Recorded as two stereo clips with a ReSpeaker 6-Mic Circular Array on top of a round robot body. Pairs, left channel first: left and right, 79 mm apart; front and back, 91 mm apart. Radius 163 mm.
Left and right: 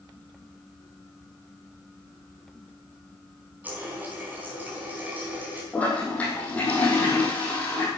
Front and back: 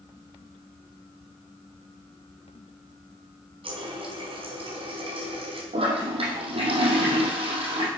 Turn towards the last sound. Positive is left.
turn(degrees=165)